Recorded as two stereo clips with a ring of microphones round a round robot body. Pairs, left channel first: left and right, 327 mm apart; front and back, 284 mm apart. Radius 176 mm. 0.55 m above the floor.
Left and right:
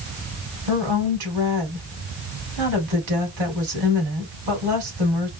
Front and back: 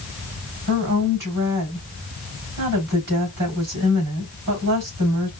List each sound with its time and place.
0.7 s a woman speaking: 120° right, 3.5 m